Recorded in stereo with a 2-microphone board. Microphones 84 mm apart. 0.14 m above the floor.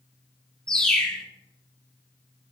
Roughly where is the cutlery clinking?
I don't hear cutlery clinking.